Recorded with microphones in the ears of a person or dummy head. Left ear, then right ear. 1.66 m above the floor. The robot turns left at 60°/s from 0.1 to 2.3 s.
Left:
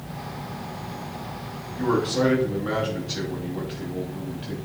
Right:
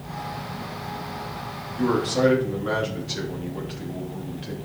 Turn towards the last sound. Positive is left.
turn(degrees=-170)